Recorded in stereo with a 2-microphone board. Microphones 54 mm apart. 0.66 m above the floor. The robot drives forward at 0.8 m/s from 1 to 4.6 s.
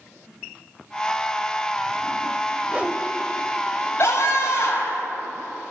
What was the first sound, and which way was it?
A whoosh, 25° right (ahead or behind).